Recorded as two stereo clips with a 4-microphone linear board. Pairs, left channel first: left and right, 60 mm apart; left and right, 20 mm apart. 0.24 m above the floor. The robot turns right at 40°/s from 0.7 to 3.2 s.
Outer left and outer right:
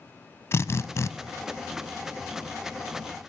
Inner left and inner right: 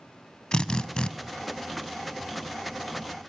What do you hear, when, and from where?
0.5 s a drill: 45° left (ahead or behind), 0.8 m; by 1.1 s 55° left (ahead or behind), 0.8 m